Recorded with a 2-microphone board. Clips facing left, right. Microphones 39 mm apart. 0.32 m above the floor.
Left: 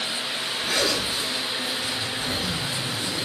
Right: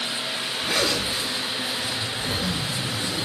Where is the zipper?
10° right (ahead or behind), 1.2 m.